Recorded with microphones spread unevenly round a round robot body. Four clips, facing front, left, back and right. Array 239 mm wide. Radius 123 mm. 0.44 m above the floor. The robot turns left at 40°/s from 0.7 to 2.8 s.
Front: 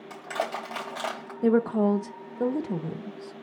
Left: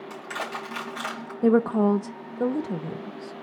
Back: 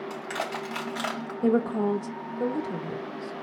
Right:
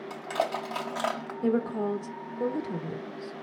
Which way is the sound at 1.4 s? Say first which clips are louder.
Left 7 dB, front 2 dB; 85° left.